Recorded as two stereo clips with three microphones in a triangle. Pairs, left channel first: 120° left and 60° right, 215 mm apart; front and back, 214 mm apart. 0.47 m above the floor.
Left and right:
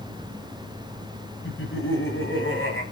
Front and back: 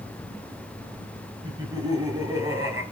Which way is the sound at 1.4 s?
110° left.